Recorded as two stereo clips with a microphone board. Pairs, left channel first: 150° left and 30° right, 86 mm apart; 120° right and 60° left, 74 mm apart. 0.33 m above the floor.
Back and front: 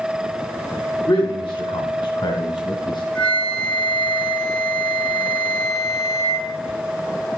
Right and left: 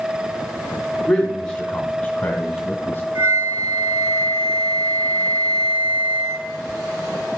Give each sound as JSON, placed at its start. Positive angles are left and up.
{"t": 1.1, "sound": "a man speaking", "azimuth_deg": 155, "distance_m": 2.0}
{"t": 3.1, "sound": "a flute", "azimuth_deg": 85, "distance_m": 1.5}